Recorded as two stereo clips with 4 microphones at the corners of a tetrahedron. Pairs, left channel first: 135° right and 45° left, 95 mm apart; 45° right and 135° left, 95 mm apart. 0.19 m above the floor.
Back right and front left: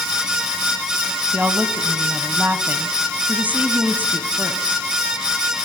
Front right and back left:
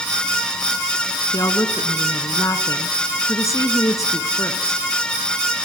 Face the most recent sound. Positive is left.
turn(degrees=-20)